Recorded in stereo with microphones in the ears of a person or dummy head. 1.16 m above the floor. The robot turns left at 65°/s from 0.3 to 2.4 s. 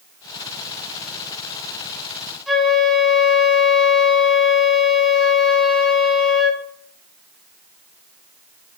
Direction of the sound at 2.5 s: Centre (ahead or behind).